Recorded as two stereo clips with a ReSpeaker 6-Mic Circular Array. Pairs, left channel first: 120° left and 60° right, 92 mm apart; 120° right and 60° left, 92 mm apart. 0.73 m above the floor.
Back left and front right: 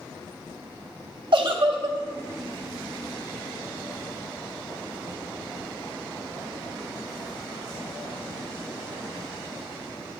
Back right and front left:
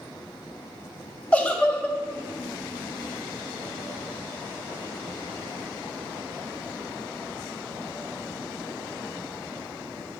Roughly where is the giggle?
Ahead right.